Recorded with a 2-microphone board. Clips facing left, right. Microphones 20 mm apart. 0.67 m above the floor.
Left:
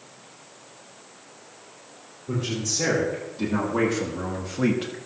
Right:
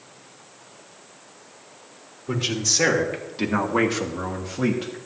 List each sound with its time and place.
2.3 s a man speaking: 65° right (ahead or behind), 2.5 m; by 5.0 s 20° left (ahead or behind), 1.1 m